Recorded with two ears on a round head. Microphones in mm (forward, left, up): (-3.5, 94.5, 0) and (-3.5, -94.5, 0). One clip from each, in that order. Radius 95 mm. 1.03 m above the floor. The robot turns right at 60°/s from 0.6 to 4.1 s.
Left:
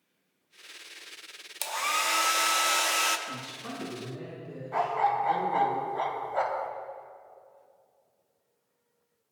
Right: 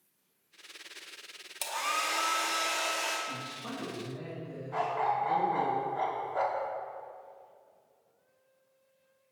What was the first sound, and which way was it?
A hair dryer, 15° left.